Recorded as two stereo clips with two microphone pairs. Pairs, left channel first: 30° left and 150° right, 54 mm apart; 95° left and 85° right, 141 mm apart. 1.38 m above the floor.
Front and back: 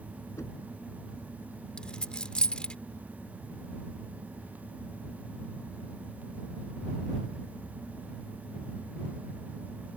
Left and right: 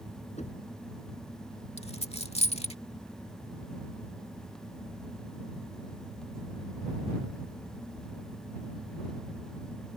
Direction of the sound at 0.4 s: 55° left.